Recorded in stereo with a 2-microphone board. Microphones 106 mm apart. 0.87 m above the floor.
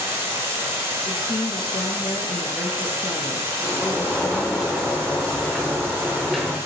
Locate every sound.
0.0 s running water: 30° right (ahead or behind), 1.0 m
1.1 s a woman speaking: 45° left (ahead or behind), 0.5 m
3.6 s a sliding door: centre (ahead or behind), 0.6 m